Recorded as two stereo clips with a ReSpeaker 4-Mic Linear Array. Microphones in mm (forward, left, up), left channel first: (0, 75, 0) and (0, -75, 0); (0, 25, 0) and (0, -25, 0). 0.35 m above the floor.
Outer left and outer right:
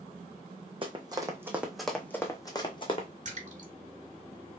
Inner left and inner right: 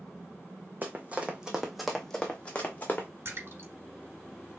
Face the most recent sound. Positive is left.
turn(degrees=-55)  # may be behind; listen again after turning